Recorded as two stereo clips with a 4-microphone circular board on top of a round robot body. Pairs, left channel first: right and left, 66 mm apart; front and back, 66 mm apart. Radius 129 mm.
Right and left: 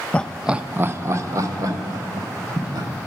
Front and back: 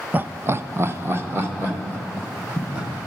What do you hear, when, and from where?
0.1 s laughter: 145° right, 0.5 m; by 2.9 s 120° left, 2 m